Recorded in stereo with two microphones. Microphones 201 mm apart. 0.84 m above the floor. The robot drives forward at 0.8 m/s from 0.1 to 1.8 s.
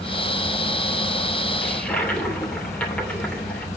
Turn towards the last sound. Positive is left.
turn(degrees=5)  # may be behind; listen again after turning